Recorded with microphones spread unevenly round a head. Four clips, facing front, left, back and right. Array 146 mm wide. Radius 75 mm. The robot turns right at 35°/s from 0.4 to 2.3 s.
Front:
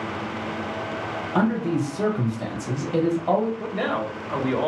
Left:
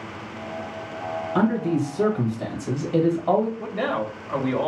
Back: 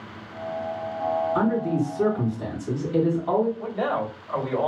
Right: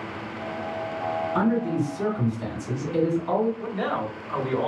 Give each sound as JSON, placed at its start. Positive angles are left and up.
{"t": 1.4, "sound": "a man speaking", "azimuth_deg": 30, "distance_m": 1.7}
{"t": 3.6, "sound": "a man speaking", "azimuth_deg": 55, "distance_m": 1.3}